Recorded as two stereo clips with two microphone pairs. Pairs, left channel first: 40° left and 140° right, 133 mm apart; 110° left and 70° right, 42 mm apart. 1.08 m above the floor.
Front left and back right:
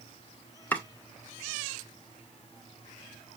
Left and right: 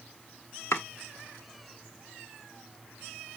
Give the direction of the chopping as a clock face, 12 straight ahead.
8 o'clock.